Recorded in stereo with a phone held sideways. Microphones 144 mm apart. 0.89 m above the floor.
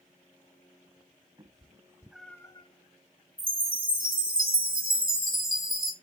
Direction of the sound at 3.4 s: 75° right (ahead or behind).